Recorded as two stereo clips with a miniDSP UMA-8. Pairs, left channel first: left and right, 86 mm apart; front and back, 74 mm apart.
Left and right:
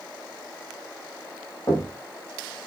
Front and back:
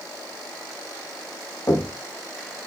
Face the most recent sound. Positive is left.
turn(degrees=45)